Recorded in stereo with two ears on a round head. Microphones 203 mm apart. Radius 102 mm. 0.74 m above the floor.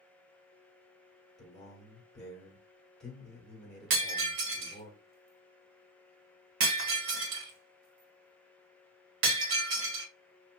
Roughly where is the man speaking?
Centre.